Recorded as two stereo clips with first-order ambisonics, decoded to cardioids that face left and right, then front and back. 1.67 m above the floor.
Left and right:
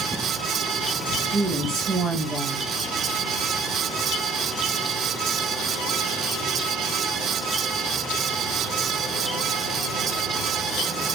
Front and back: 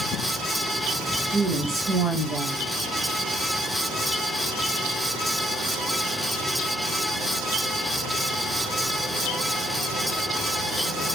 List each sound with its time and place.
1.3 s a woman speaking: 135° right, 0.5 m